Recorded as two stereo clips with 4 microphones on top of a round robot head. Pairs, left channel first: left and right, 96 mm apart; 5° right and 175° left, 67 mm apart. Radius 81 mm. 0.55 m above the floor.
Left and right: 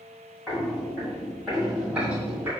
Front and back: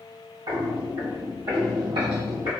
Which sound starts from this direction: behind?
Footsteps, at 0.5 s.